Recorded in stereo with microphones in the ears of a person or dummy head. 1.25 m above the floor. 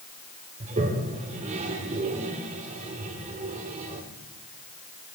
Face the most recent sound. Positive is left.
turn(degrees=-40)  # may be behind; listen again after turning